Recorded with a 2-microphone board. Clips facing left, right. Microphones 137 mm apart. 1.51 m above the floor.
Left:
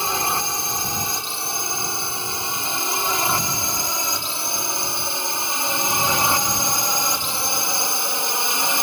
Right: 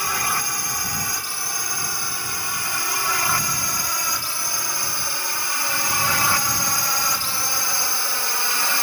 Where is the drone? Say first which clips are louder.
Left 3 dB; 25° left (ahead or behind); by 8.8 s 20° left (ahead or behind).